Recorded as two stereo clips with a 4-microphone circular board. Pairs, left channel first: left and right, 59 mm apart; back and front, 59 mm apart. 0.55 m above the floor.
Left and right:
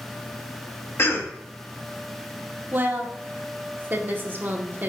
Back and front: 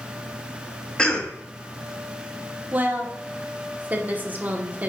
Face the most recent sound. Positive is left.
turn(degrees=-50)